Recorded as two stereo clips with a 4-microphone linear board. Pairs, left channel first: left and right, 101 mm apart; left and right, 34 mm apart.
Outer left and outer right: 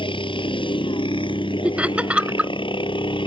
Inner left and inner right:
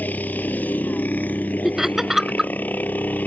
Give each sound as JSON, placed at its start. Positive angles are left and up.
{"t": 0.0, "sound": "a helicopter", "side_deg": 55}
{"t": 1.6, "sound": "laughter", "side_deg": -10}